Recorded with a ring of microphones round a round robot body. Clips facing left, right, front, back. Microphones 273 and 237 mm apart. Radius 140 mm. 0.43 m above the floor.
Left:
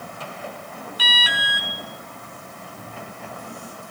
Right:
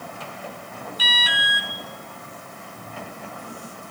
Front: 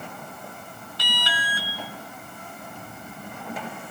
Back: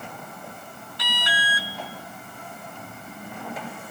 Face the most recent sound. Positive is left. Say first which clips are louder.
# left 1 dB, back 1 dB
turn(degrees=55)